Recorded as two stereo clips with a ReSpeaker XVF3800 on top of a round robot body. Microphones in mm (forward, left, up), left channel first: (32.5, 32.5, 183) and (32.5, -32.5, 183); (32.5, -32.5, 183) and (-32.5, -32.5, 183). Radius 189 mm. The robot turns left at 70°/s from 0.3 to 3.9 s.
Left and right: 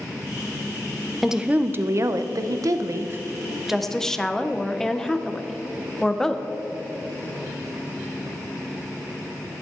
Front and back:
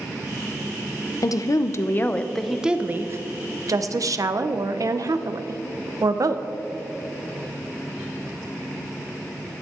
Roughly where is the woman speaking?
Ahead.